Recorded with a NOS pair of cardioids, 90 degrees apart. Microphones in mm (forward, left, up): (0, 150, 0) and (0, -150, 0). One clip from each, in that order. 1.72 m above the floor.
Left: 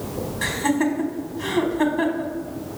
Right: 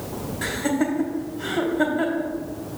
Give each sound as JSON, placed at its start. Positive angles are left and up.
{"t": 0.4, "sound": "laughter", "azimuth_deg": 5, "distance_m": 1.7}